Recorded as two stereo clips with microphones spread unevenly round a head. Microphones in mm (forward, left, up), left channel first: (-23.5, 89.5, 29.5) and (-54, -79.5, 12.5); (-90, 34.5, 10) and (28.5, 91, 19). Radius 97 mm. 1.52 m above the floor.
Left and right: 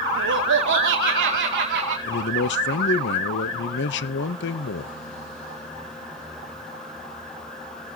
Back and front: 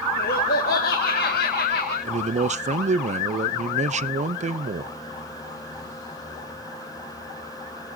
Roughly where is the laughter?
Behind right.